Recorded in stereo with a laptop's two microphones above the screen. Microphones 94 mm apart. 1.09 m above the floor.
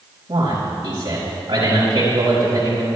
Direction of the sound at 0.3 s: 45° right (ahead or behind).